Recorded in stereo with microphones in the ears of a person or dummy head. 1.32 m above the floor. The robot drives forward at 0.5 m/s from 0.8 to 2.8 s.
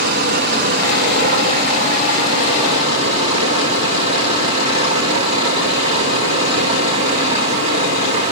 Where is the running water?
55° right (ahead or behind), 1.8 m; by 8.3 s 35° right (ahead or behind), 2.5 m.